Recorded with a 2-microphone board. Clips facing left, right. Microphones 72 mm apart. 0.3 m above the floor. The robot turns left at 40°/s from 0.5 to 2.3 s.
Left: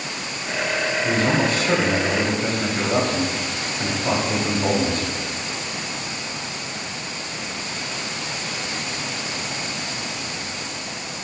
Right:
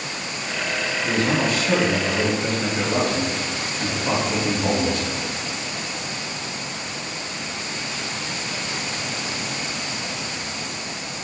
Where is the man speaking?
120° left, 1.1 m; by 5.1 s 70° left, 1.1 m.